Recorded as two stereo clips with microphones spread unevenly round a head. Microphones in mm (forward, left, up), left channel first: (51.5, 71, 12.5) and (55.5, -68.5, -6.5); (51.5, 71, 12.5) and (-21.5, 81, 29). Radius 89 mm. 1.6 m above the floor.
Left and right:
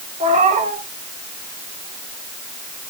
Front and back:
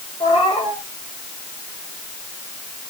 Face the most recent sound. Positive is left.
turn(degrees=-50)